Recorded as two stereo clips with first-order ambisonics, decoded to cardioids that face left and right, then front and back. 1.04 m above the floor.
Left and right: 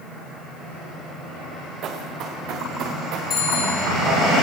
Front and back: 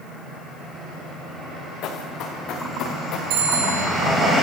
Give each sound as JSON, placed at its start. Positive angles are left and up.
{"t": 1.8, "sound": "running footsteps", "azimuth_deg": -40, "distance_m": 4.5}
{"t": 3.3, "sound": "a bicycle bell", "azimuth_deg": 155, "distance_m": 7.0}